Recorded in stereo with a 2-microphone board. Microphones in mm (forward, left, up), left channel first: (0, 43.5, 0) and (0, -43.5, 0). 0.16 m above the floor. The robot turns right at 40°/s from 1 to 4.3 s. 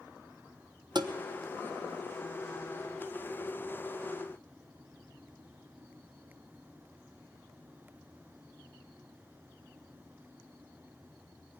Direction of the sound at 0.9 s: 60° right (ahead or behind).